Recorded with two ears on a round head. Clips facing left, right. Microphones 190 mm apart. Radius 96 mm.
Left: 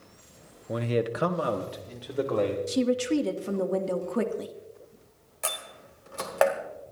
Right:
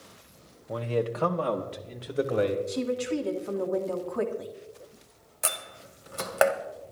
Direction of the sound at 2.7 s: 35° left (ahead or behind).